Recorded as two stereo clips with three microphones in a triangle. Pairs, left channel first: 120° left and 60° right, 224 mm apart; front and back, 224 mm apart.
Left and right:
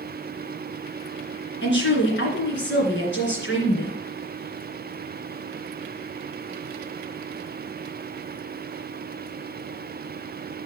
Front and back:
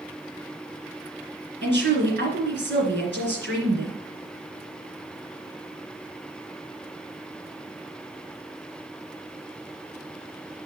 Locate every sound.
1.6 s a woman speaking: 150° left, 2.5 m